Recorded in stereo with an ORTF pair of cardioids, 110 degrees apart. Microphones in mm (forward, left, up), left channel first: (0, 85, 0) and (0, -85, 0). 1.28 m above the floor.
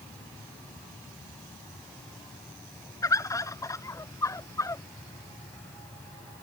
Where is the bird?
20° left.